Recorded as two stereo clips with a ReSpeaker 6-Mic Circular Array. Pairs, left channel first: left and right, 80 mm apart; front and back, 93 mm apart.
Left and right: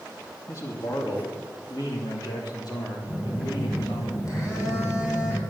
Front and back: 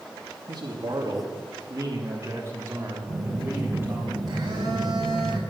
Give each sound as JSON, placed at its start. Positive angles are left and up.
{"t": 0.5, "sound": "a man speaking", "azimuth_deg": 140, "distance_m": 2.5}
{"t": 3.1, "sound": "a phone buzzing", "azimuth_deg": 135, "distance_m": 6.0}